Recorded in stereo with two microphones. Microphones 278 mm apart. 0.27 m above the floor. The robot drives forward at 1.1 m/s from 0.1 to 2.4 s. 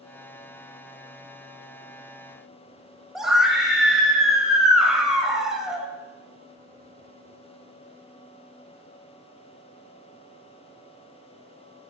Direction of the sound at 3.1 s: Centre (ahead or behind).